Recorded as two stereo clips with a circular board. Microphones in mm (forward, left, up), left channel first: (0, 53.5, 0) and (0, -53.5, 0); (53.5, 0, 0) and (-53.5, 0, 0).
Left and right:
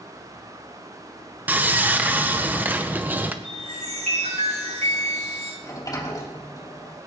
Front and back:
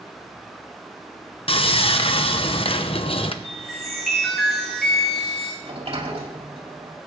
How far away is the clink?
I don't hear a clink.